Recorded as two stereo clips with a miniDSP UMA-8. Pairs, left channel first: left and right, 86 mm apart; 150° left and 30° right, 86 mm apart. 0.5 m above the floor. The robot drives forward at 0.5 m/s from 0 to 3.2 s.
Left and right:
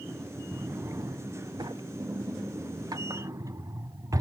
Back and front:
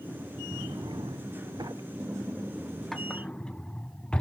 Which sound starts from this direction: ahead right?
A drawer, at 0.5 s.